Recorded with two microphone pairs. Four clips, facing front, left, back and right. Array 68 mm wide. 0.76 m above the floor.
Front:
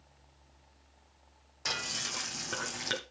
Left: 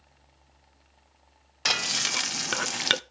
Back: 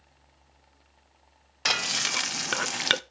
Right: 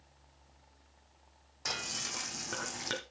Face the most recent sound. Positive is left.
turn(degrees=135)